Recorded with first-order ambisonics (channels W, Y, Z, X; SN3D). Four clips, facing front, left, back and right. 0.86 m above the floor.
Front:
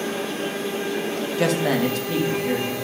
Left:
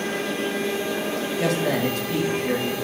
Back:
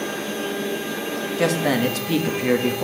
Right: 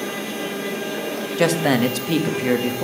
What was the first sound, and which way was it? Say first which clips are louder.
A man speaking: right 6 dB, back 1 dB; 90° right.